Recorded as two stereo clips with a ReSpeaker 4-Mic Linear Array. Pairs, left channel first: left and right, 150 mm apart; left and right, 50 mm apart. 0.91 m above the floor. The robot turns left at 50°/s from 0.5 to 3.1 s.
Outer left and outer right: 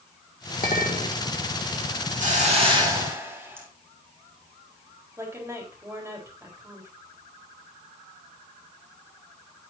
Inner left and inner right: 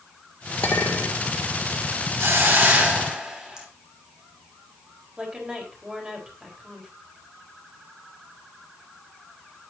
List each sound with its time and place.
0.6 s a clink: 70° left (ahead or behind), 2 m; by 1.2 s 40° left (ahead or behind), 2 m
2.2 s a hiss: 120° right, 3 m; by 3.7 s 165° right, 3 m
5.2 s a woman speaking: 15° right (ahead or behind), 4 m